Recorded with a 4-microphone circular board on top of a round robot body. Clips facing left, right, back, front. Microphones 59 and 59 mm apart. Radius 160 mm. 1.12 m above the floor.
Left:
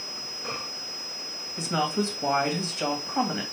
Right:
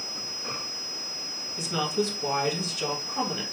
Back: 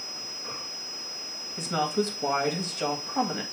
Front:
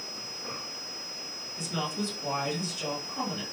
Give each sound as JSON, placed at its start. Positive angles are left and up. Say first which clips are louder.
{"t": 1.6, "sound": "a woman speaking", "louder": "left 1 dB, back 6 dB", "azimuth_deg": 150, "distance_m": 2.0}